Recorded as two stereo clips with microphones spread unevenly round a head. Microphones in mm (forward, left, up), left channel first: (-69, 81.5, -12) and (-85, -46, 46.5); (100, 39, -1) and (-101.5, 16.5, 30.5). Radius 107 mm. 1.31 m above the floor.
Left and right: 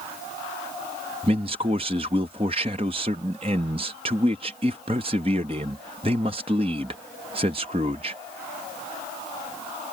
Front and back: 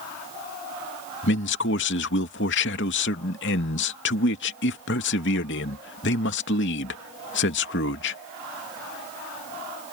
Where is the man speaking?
35° right.